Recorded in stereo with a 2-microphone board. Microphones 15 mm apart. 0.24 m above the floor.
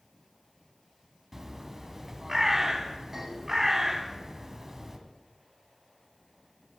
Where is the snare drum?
I don't hear a snare drum.